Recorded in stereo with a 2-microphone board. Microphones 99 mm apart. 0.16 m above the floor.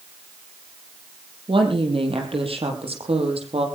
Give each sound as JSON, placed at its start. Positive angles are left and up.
{"t": 1.5, "sound": "a woman speaking", "side_deg": -60, "distance_m": 5.0}